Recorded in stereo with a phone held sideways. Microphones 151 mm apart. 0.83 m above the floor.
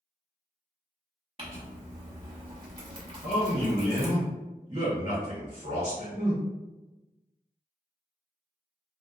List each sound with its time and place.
1.4 s crumpling: 40° right (ahead or behind), 0.8 m
3.2 s a man speaking: 30° right (ahead or behind), 1.3 m